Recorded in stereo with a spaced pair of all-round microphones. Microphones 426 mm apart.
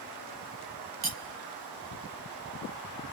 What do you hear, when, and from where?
1.0 s cutlery clinking: 60° right (ahead or behind), 0.7 m